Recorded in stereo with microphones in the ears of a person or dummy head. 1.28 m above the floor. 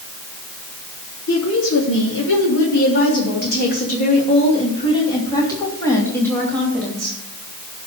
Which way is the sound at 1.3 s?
80° left.